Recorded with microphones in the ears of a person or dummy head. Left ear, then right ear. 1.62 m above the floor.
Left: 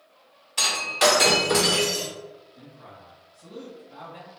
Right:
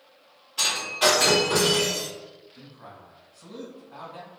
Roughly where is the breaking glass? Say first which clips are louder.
Left 2 dB; left.